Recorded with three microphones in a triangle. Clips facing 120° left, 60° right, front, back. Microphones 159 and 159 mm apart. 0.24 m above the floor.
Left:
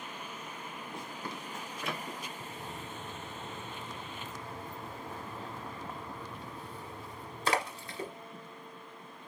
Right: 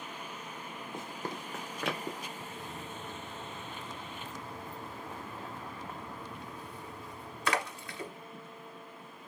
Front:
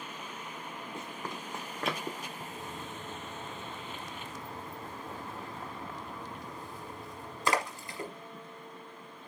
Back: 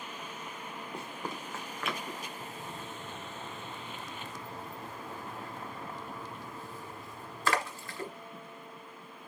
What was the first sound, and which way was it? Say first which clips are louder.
Running footsteps: right 4 dB, back 2 dB; 130° right.